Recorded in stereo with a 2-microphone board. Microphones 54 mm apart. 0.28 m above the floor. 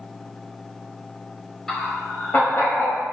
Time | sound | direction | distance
1.7 | laughter | 5° left (ahead or behind) | 0.9 m